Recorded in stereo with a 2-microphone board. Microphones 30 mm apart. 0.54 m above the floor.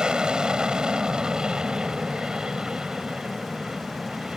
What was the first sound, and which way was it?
An aircraft, 30° right (ahead or behind).